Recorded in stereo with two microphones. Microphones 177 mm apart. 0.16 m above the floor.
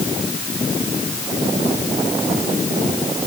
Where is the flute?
No flute in this recording.